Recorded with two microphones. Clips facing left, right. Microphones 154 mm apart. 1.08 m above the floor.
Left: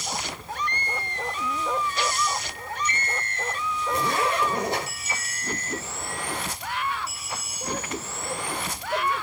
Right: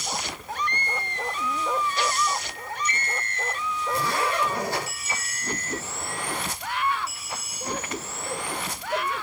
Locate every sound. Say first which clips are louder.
3.9 s a zipper: left 1 dB; 20° left (ahead or behind), 5 m